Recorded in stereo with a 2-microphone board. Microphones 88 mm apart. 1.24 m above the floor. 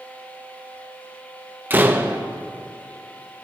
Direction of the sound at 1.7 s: 20° right (ahead or behind).